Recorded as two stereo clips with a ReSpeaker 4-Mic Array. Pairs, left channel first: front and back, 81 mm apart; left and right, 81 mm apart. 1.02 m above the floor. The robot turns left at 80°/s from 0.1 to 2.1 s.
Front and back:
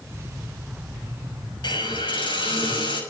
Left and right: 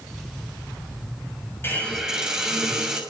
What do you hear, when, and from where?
1.6 s a hiss: 25° left, 6.5 m; by 3.0 s 10° right, 6.5 m